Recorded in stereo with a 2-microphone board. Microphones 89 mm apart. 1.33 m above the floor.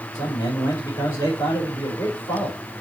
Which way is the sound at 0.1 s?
45° left (ahead or behind).